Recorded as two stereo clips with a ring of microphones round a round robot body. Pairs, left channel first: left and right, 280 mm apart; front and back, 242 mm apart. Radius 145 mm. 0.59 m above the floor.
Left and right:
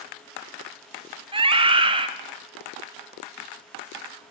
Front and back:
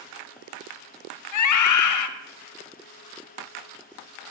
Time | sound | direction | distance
1.3 | a scream | 15° right | 2.5 m